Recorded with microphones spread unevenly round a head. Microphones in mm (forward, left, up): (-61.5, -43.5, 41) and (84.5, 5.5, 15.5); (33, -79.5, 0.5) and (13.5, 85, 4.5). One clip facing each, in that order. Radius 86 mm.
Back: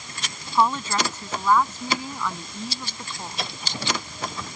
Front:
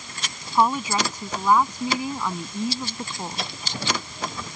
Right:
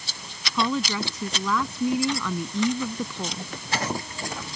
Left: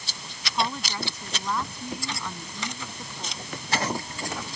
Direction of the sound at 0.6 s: 60° right.